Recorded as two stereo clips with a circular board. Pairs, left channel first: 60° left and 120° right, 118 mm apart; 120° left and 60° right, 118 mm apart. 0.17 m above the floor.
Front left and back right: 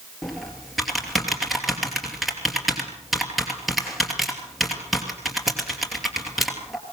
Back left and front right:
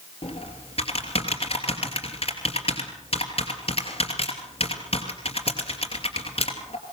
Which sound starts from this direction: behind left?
Typing on a keyboard, at 0.2 s.